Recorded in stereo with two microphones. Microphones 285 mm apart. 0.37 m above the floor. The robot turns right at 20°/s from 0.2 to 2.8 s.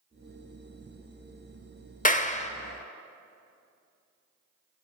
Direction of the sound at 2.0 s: 30° left (ahead or behind).